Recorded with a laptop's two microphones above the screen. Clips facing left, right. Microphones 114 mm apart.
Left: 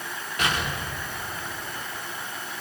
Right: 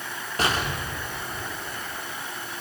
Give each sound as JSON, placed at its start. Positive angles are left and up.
{"t": 0.4, "sound": "an explosion", "side_deg": -35, "distance_m": 2.0}